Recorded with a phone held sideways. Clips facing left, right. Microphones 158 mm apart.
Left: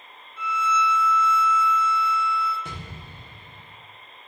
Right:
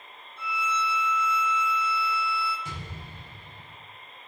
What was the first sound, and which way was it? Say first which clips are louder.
A violin: left 6 dB; 70° left (ahead or behind).